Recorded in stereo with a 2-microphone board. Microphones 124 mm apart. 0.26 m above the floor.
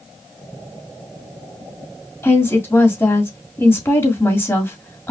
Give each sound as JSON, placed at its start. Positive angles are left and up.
{"t": 2.2, "sound": "a woman speaking", "side_deg": 20, "distance_m": 1.9}